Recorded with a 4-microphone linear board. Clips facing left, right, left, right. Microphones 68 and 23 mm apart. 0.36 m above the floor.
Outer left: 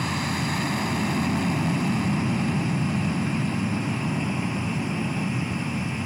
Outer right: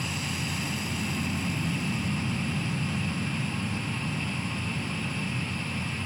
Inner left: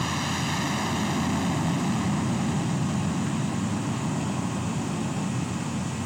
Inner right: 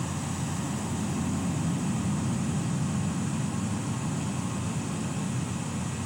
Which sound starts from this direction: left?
An aircraft, at 0.0 s.